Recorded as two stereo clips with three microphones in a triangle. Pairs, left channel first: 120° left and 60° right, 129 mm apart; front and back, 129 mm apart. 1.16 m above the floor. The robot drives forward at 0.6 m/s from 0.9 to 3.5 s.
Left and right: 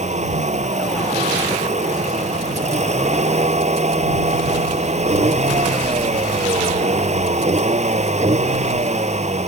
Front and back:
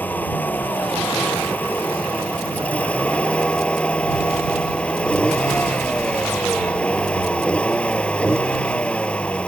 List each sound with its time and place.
0.0 s a vehicle: 75° right; by 9.5 s 80° right